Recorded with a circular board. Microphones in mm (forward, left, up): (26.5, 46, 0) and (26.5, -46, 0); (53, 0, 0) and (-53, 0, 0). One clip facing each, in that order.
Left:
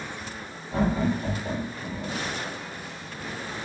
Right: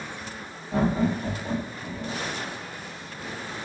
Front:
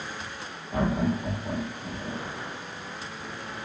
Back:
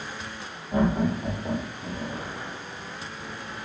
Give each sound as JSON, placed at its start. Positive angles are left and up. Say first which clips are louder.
{"t": 0.7, "sound": "laughter", "louder": "right 1 dB, back 2 dB", "azimuth_deg": -140, "distance_m": 1.3}